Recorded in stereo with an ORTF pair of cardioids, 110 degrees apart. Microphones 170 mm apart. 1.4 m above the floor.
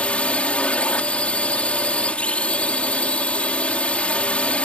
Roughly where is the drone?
Ahead.